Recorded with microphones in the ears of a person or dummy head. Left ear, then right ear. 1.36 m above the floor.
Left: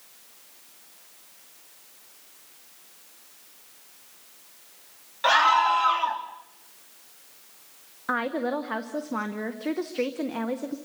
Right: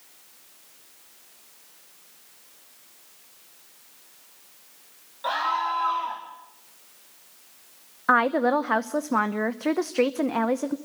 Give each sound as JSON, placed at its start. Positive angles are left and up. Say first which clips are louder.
{"t": 5.2, "sound": "a scream", "louder": "left 6 dB", "side_deg": 65, "distance_m": 3.0}
{"t": 8.1, "sound": "a woman speaking", "louder": "right 7 dB", "side_deg": -35, "distance_m": 0.8}